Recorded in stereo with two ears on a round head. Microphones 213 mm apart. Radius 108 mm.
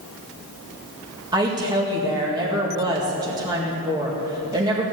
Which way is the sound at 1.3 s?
15° right (ahead or behind).